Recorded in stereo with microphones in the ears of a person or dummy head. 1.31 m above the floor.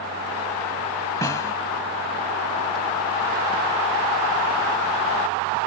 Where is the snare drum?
15° left (ahead or behind).